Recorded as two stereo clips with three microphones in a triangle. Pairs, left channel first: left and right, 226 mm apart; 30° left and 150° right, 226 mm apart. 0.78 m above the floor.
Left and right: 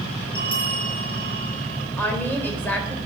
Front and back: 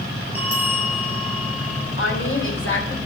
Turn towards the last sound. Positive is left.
turn(degrees=10)